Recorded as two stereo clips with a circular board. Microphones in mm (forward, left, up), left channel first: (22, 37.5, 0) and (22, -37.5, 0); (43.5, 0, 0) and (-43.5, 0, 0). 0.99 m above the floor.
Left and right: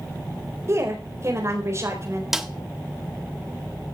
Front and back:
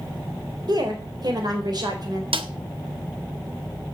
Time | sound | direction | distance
0.7 | a woman speaking | 140° right | 4.5 m
2.3 | a snare drum | 175° right | 1.5 m